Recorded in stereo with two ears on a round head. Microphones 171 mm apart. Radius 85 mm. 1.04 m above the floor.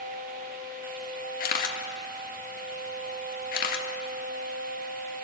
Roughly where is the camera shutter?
Left.